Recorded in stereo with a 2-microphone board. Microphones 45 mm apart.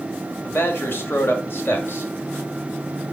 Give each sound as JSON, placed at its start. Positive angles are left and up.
{"t": 0.4, "sound": "a man speaking", "side_deg": 55, "distance_m": 2.0}